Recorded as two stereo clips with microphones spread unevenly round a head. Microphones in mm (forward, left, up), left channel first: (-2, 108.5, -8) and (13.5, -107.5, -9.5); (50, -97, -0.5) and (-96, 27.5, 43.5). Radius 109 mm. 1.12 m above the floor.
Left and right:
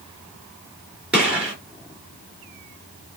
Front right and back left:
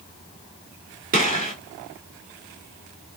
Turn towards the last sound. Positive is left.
turn(degrees=-170)